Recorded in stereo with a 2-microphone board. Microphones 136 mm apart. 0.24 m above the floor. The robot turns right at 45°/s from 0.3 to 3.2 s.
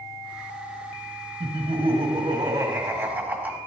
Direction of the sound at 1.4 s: 100° right.